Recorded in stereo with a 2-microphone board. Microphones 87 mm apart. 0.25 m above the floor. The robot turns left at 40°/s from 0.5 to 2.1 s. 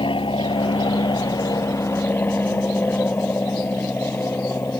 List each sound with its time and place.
0.0 s an aircraft: 90° left; by 4.8 s 25° left